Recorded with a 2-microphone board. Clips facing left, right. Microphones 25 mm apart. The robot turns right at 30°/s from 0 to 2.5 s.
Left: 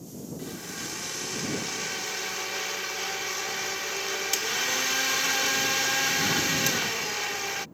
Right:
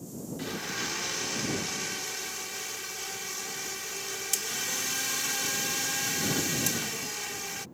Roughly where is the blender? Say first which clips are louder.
Right 5 dB; ahead right.